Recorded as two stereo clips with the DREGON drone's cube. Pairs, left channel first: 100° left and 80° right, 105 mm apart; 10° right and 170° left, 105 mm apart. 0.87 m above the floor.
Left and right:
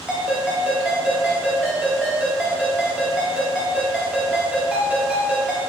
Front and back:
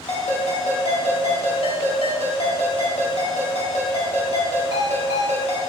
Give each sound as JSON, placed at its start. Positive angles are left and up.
{"t": 0.1, "sound": "a ringtone", "azimuth_deg": 0, "distance_m": 2.5}